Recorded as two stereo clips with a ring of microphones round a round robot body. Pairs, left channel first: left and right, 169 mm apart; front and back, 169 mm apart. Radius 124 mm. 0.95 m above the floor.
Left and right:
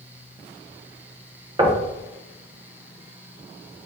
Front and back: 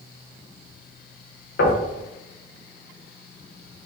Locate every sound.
1.6 s knocking: 30° right, 0.8 m